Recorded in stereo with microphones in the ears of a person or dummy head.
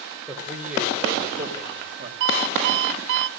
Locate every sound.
0.3 s a man speaking: centre (ahead or behind), 3.5 m; by 2.1 s 30° right (ahead or behind), 4 m
2.2 s an alarm clock: 60° right (ahead or behind), 0.6 m